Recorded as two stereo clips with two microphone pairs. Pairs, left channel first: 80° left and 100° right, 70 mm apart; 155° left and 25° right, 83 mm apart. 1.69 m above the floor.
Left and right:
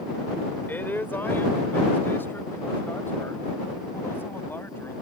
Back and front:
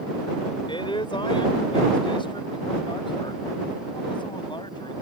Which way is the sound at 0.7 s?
140° left.